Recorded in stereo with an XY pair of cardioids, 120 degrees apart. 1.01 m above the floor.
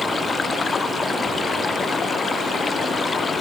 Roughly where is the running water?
Ahead left.